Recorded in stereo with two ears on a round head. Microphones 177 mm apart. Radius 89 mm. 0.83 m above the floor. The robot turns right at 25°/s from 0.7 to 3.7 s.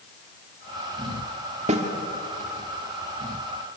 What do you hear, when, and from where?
1.7 s a snare drum: 35° right (ahead or behind), 2 m; by 1.8 s 30° right (ahead or behind), 2 m